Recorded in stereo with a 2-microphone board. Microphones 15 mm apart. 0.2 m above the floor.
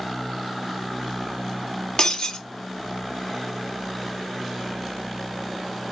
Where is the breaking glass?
50° left (ahead or behind), 1.0 m.